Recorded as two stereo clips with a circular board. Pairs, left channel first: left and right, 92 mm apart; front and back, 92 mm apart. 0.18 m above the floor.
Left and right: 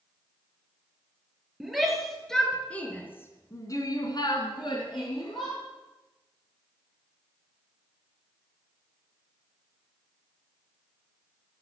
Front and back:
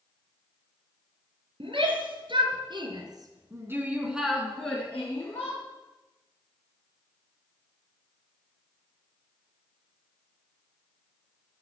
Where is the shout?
175° right, 4 m; by 5.6 s 60° left, 3.5 m.